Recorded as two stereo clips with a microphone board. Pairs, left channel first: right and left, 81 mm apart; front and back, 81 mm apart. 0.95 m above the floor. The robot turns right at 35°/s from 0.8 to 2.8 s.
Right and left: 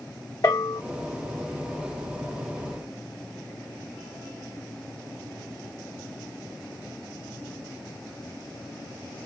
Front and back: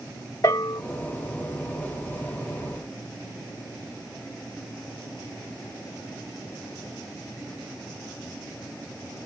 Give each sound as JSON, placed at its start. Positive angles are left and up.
{"t": 0.4, "sound": "a bell", "azimuth_deg": -50, "distance_m": 1.0}